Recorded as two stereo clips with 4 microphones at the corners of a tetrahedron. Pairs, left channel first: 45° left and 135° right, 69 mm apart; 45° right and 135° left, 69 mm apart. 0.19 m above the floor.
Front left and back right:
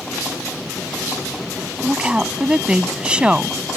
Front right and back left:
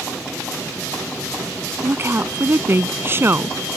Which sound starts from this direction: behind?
A woman speaking, at 1.8 s.